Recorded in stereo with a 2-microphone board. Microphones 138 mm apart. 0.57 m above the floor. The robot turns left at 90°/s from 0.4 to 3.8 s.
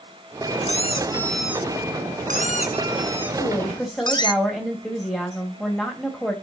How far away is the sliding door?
I don't hear a sliding door.